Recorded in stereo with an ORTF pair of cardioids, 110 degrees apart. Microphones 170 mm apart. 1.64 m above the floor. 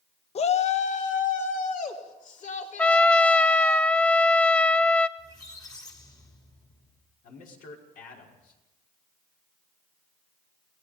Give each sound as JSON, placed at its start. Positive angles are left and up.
{"t": 0.3, "sound": "a shout", "azimuth_deg": 40, "distance_m": 1.2}
{"t": 2.8, "sound": "a trumpet", "azimuth_deg": 5, "distance_m": 0.6}
{"t": 5.2, "sound": "a squeak", "azimuth_deg": 20, "distance_m": 3.0}
{"t": 7.2, "sound": "a man speaking", "azimuth_deg": 60, "distance_m": 6.0}